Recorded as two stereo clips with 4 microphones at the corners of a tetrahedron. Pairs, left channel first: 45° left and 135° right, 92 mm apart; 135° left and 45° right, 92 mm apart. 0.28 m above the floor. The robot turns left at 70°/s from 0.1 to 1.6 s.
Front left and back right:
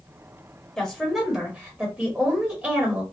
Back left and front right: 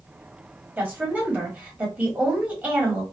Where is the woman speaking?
20° right, 1.3 m; by 3.0 s 80° right, 1.3 m.